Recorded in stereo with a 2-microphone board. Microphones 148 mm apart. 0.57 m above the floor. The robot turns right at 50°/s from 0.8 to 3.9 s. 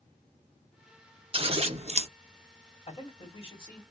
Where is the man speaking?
90° left, 1.5 m; by 3.8 s 140° left, 1.5 m.